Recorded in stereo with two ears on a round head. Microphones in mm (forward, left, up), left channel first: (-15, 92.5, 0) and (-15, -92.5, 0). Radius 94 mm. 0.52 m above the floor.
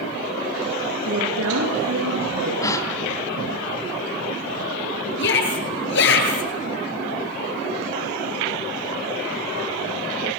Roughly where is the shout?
Left.